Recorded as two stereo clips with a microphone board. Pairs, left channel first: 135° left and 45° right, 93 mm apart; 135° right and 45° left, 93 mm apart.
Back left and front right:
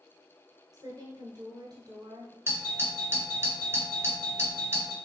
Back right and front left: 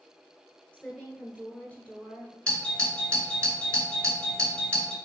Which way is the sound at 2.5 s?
65° right.